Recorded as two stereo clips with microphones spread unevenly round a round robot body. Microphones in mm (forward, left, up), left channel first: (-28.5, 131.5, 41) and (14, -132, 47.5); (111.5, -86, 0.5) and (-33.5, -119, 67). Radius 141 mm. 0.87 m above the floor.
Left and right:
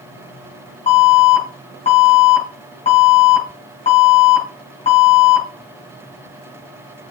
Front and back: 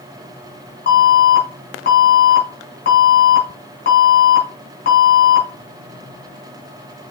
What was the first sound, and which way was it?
An alarm, 30° left.